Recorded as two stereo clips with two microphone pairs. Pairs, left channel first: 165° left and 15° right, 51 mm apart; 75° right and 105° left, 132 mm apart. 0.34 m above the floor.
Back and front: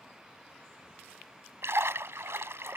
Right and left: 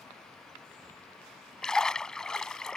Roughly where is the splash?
Ahead.